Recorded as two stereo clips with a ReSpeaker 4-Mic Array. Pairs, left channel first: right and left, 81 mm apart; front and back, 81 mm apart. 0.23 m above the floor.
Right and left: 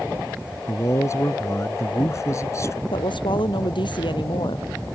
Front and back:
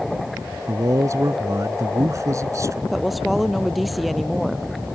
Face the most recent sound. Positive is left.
turn(degrees=-90)